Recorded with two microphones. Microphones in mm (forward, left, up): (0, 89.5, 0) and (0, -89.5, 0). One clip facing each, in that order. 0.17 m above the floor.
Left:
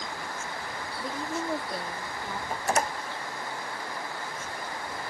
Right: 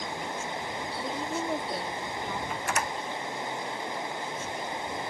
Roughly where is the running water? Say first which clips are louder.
Right 3 dB; right.